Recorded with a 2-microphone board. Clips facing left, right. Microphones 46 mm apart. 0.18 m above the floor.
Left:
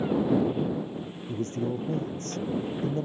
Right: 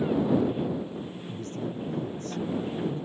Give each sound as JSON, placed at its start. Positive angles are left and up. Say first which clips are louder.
{"t": 0.4, "sound": "a man speaking", "louder": "even", "side_deg": 40}